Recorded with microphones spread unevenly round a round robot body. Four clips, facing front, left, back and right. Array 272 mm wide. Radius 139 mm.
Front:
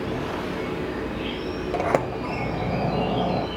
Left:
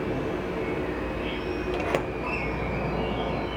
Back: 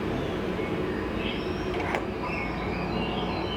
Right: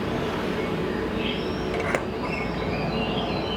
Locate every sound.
0.0 s an insect: 90° right, 5 m
1.7 s a sliding door: straight ahead, 0.7 m